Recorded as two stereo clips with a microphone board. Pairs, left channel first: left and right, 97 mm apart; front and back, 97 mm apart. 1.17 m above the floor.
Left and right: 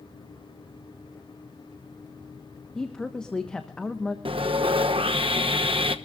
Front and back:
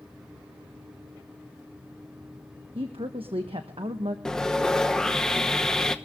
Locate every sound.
2.8 s a woman speaking: 170° left, 1.1 m
4.2 s sawing: 80° right, 0.9 m